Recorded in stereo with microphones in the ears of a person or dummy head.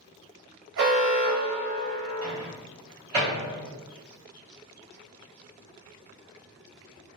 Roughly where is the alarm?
Right.